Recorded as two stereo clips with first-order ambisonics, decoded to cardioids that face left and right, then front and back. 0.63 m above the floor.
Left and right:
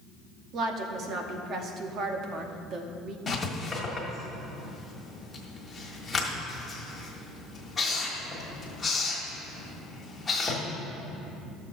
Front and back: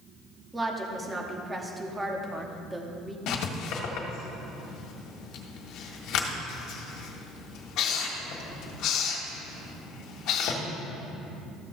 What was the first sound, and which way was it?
A woman speaking, 110° right.